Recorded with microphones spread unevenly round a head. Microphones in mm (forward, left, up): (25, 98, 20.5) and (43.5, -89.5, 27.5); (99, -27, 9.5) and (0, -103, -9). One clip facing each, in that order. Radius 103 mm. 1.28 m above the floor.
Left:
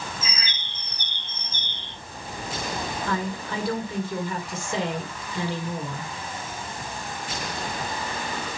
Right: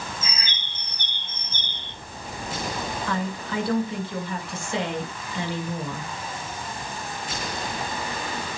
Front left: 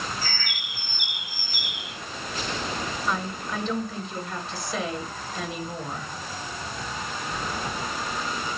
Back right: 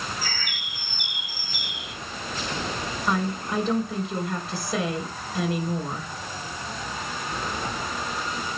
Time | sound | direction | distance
0.2 | a bird | 100° left | 4.5 m
3.1 | a woman speaking | 150° left | 4.5 m